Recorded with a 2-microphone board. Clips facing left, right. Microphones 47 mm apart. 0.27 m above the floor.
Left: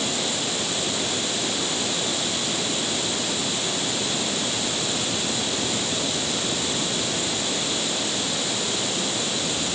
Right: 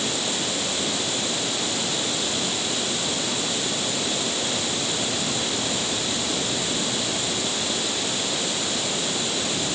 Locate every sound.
Only background noise.